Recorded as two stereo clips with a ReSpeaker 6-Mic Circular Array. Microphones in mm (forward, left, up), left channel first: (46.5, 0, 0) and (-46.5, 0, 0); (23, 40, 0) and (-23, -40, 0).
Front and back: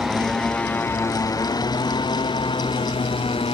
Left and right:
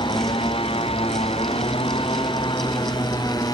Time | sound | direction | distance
0.0 | a motorcycle | 95° left | ?